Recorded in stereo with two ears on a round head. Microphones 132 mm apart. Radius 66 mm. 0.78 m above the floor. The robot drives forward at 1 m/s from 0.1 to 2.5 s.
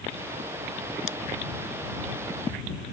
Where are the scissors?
50° left (ahead or behind).